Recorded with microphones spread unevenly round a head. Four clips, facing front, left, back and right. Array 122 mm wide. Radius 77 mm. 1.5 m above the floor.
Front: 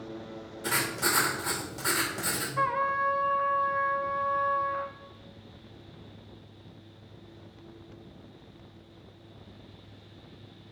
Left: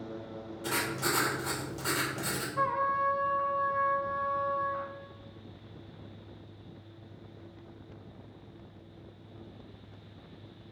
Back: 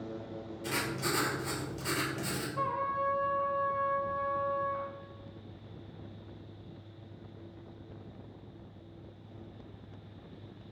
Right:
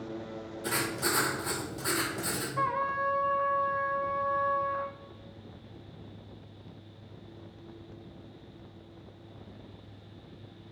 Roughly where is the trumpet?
Ahead left.